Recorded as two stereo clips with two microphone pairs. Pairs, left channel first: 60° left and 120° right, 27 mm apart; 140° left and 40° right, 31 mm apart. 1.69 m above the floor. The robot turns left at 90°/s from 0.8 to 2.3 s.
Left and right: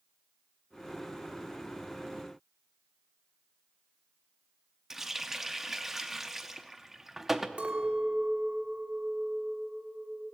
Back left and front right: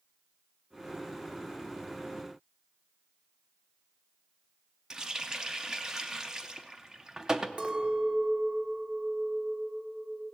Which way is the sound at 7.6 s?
85° right.